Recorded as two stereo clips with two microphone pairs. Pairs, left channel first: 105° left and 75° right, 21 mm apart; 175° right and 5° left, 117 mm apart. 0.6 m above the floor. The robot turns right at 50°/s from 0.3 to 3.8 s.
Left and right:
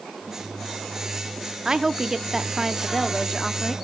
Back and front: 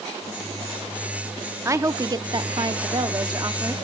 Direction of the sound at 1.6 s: 45° right.